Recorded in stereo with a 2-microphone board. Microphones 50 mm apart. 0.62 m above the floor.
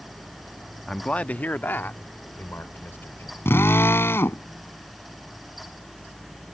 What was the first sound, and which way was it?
A man speaking, 10° left (ahead or behind).